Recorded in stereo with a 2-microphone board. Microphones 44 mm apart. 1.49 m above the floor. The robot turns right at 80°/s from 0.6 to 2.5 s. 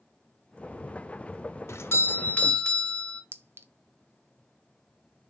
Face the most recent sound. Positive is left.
turn(degrees=-65)  # may be behind; listen again after turning